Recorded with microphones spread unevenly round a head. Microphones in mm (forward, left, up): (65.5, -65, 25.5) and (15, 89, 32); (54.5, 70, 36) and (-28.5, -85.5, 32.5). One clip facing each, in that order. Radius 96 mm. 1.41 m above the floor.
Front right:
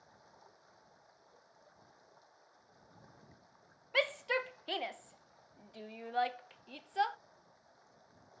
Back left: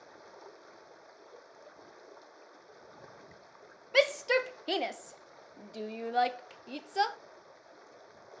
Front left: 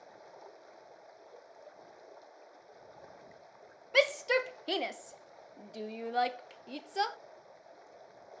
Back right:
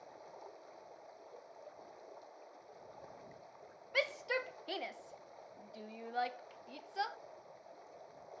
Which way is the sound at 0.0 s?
150° left.